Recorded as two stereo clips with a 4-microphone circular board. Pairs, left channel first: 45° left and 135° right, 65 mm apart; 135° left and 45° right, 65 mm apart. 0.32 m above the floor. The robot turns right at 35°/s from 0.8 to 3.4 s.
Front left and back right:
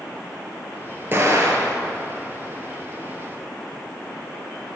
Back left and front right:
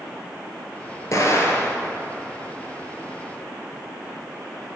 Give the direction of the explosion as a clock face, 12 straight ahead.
6 o'clock.